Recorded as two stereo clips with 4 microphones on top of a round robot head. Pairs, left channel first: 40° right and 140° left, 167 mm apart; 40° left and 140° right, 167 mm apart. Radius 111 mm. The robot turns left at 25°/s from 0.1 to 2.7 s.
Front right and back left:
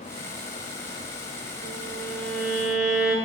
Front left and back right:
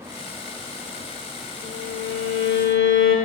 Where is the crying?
I don't hear crying.